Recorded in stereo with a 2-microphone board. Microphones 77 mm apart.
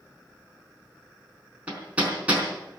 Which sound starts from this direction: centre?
Hammering, at 1.7 s.